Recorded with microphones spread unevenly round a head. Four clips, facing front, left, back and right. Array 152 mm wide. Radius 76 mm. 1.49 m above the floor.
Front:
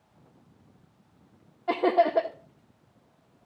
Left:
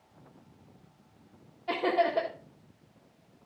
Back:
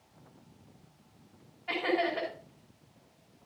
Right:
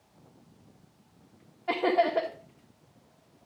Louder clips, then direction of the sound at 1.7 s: Right 2 dB, front 8 dB; 15° right.